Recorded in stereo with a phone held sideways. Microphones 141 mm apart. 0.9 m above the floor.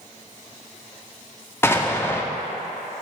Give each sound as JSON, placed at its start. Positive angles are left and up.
{"t": 1.6, "sound": "an explosion", "side_deg": 15, "distance_m": 0.5}